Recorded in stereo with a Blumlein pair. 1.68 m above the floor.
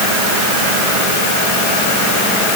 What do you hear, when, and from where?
Only background noise.